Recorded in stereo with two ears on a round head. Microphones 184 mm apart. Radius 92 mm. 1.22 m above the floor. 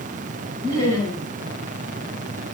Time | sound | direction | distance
0.6 | laughter | 15° left (ahead or behind) | 9.5 m